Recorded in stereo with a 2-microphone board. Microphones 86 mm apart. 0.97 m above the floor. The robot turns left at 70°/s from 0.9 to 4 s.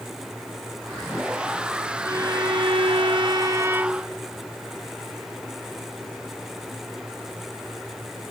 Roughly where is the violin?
Ahead right.